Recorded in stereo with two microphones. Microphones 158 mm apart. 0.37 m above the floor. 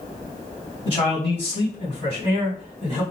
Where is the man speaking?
40° left (ahead or behind), 2 m; by 3.0 s 35° left (ahead or behind), 3.5 m.